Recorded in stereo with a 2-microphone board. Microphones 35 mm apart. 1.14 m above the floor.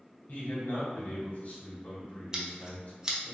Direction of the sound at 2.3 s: 20° right (ahead or behind).